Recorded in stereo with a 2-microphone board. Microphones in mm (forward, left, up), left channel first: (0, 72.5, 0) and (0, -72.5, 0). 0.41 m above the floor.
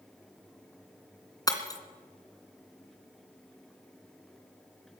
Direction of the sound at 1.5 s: 25° left (ahead or behind).